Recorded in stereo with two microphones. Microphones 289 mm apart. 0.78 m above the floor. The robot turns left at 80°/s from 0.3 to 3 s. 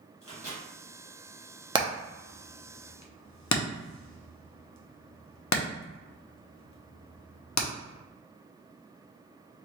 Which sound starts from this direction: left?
A microwave, at 0.2 s.